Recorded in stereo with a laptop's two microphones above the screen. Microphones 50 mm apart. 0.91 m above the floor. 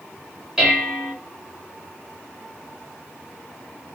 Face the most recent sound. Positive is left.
turn(degrees=-10)  # may be behind; listen again after turning